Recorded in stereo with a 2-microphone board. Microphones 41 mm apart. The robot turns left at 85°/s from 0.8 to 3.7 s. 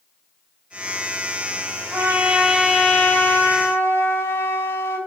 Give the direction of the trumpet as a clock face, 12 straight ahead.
4 o'clock.